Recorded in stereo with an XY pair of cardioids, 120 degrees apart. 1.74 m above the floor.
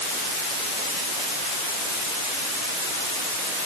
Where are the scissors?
I don't hear scissors.